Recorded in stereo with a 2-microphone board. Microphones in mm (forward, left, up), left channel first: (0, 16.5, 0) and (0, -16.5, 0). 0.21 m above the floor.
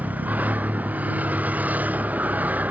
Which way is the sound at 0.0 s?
55° right (ahead or behind).